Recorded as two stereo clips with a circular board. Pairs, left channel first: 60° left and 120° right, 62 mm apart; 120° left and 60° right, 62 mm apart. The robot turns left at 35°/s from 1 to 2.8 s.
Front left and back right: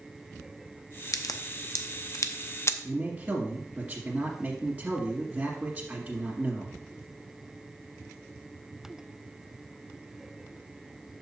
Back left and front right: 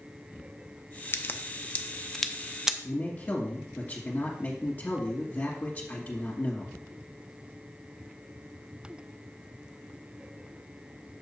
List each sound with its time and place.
1.1 s a crack: 75° left, 0.6 m; by 2.7 s 15° left, 0.6 m
2.8 s a man speaking: straight behind, 1.6 m